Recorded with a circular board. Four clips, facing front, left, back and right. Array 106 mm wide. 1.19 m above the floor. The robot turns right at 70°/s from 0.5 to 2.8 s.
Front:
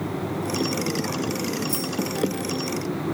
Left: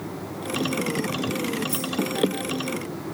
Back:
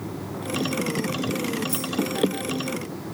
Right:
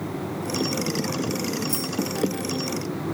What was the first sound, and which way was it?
Keys jangling, 70° right.